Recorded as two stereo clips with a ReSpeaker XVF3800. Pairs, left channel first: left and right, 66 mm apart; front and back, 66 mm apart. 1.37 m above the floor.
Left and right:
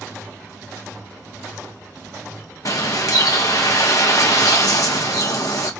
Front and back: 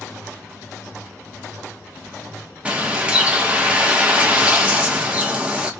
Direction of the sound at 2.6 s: 110° left.